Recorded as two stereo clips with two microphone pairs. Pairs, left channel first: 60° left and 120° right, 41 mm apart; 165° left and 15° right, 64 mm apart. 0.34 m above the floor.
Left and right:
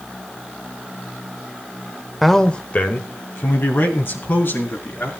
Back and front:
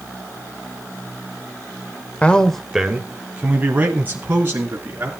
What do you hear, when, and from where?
2.2 s a man speaking: 155° left, 1.1 m; by 5.1 s 40° left, 4.5 m